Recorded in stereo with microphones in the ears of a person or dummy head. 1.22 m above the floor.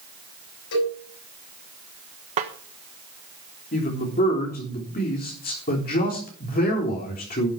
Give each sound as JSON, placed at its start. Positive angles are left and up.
{"t": 0.7, "sound": "a cowbell", "side_deg": 65, "distance_m": 7.0}
{"t": 2.4, "sound": "a snare drum", "side_deg": -30, "distance_m": 1.2}
{"t": 3.7, "sound": "a man speaking", "side_deg": 40, "distance_m": 3.5}